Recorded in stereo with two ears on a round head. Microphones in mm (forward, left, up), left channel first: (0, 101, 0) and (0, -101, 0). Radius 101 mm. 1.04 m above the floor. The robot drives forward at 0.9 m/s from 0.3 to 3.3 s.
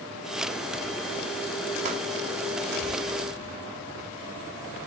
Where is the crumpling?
30° right (ahead or behind), 2.5 m; by 2.0 s 35° right (ahead or behind), 2.5 m.